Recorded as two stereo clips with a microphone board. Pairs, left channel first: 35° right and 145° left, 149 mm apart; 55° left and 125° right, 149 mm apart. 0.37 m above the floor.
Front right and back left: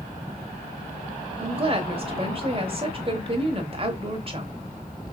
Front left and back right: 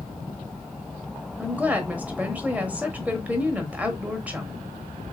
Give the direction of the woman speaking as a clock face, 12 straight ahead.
7 o'clock.